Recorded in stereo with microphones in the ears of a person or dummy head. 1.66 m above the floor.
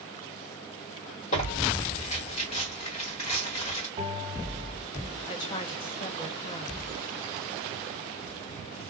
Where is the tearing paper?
40° left (ahead or behind), 1.3 m.